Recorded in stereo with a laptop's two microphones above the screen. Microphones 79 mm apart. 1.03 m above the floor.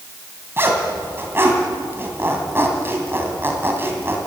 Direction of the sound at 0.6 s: 30° right (ahead or behind).